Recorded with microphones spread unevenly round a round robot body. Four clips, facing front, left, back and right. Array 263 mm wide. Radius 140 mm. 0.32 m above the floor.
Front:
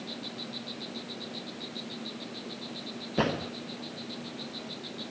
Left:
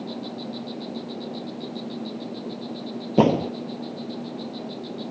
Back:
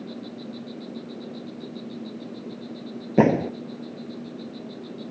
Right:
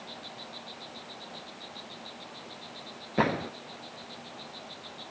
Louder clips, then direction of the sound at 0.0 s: Left 12 dB, back 5 dB; 115° left.